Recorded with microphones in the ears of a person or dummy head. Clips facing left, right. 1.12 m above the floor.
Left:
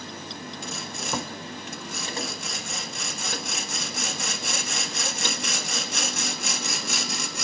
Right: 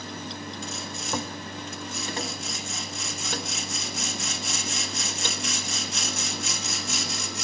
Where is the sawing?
45° left (ahead or behind), 1.7 m.